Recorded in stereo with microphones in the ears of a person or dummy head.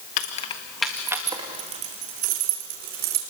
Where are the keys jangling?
35° left (ahead or behind), 1.6 m; by 3.2 s 60° right (ahead or behind), 4 m.